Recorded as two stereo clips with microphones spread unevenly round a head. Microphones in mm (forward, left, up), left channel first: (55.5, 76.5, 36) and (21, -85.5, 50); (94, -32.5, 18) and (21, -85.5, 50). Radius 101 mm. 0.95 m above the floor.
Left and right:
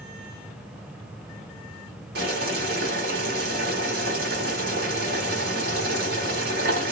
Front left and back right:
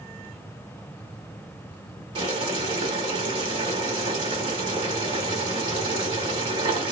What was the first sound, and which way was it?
Boiling, 145° right.